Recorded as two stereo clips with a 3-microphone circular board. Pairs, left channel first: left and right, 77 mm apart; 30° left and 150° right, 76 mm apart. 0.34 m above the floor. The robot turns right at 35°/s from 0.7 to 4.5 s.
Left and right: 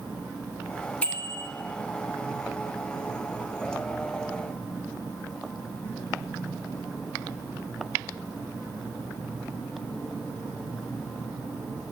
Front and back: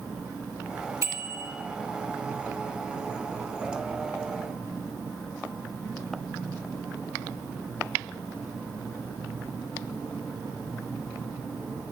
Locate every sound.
1.0 s a bicycle bell: 160° left, 3 m; by 1.5 s straight behind, 3 m